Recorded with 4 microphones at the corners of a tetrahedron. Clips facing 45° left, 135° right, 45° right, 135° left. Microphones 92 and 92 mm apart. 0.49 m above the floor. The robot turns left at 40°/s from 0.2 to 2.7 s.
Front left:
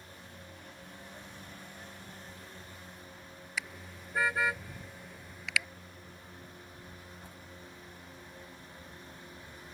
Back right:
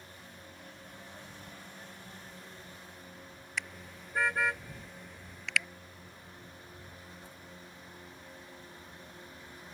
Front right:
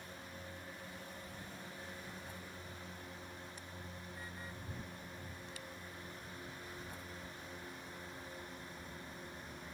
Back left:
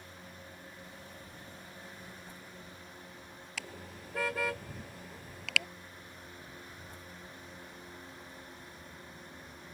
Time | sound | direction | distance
3.6 | a car horn | 130° left | ?